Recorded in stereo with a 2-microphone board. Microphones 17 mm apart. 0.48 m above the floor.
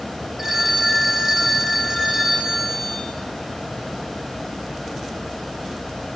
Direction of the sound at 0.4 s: 20° right (ahead or behind).